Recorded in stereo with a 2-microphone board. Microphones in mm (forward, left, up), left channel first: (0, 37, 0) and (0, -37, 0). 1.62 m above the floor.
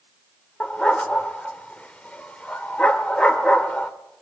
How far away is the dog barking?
About 1.4 m.